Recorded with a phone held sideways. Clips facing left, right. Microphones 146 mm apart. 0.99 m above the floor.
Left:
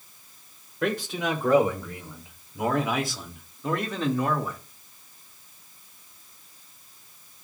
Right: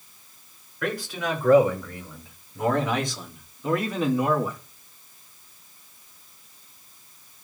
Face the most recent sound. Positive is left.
turn(degrees=-15)  # may be behind; listen again after turning